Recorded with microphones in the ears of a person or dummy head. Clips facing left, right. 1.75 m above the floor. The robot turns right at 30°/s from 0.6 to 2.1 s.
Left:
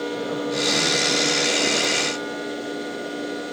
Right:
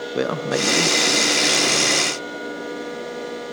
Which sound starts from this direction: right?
A man speaking, at 0.1 s.